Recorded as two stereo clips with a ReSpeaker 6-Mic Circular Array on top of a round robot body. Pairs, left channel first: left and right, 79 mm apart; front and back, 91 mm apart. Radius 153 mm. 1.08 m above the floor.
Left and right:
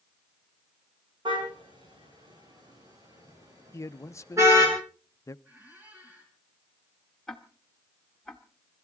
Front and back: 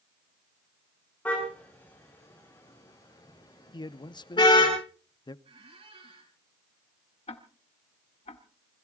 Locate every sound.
1.2 s a car horn: 75° right, 7 m; by 4.7 s 35° right, 8.5 m
3.7 s a man speaking: 35° left, 0.8 m
5.5 s a squeak: 160° right, 3.5 m
7.3 s ticking: 5° left, 1.2 m